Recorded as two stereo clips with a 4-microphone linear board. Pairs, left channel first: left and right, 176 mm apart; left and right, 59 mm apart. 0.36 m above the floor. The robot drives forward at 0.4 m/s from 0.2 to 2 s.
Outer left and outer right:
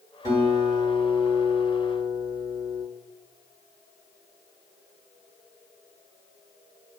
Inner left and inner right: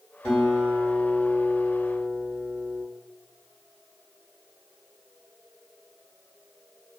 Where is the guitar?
20° left (ahead or behind), 1.6 m.